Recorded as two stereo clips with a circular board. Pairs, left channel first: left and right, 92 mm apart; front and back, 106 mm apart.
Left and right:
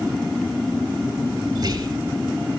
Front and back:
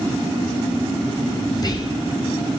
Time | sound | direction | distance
1.6 | whispering | 50° right | 4 m